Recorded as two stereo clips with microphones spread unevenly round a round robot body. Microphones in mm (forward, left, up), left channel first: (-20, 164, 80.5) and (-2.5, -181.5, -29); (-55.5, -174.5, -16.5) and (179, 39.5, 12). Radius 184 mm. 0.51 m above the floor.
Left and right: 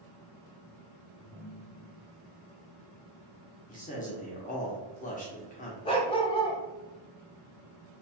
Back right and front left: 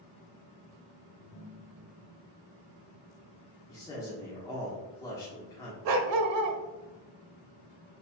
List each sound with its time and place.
1.2 s a ringtone: 160° right, 1.5 m
3.7 s a man speaking: 175° left, 1.0 m
5.8 s a dog barking: 20° left, 0.7 m